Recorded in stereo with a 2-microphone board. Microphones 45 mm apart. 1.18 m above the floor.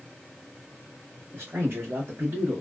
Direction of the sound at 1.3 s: 70° right (ahead or behind).